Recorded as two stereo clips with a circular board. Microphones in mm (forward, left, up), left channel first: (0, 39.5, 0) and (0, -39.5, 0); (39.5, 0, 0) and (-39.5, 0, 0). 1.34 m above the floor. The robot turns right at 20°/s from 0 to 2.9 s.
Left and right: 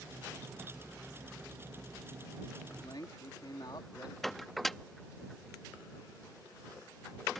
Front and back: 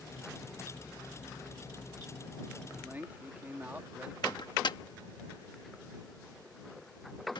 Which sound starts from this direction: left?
A man speaking, at 2.7 s.